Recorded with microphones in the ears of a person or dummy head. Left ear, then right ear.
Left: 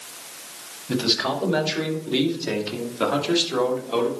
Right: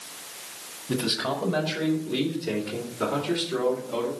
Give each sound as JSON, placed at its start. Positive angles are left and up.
{"t": 0.9, "sound": "a man speaking", "side_deg": 5, "distance_m": 1.8}